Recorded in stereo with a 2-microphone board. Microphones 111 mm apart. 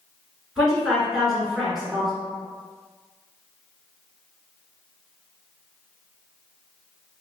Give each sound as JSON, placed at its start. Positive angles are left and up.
{"t": 0.6, "sound": "a woman speaking", "side_deg": -5, "distance_m": 1.2}